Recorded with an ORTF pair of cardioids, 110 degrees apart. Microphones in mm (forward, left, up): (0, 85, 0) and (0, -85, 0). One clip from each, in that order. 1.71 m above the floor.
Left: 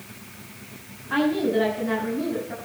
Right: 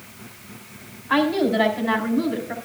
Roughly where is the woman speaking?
Ahead right.